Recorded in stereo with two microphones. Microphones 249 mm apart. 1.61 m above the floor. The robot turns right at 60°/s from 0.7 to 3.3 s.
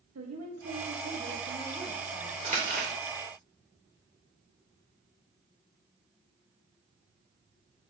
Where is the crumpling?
30° right (ahead or behind), 1.6 m; by 2.9 s 40° right (ahead or behind), 1.6 m.